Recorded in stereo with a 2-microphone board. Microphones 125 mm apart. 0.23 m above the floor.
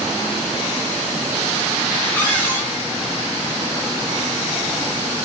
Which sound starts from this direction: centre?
A cupboard door, at 2.1 s.